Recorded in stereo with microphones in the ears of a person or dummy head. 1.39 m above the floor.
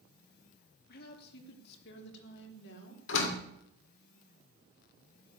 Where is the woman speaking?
60° left (ahead or behind), 3 m; by 3.0 s 75° left (ahead or behind), 4.5 m.